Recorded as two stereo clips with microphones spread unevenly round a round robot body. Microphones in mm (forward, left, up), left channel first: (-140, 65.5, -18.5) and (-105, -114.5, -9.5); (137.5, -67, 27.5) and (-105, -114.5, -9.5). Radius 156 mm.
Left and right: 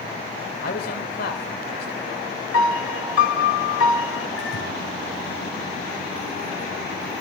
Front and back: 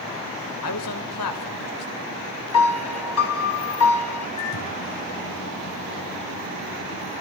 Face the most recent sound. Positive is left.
turn(degrees=50)